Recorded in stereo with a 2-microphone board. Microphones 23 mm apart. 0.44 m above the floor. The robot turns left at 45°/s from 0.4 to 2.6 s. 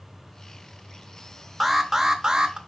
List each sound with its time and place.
1.6 s an alarm: 15° right, 0.6 m; by 2.6 s 55° right, 0.6 m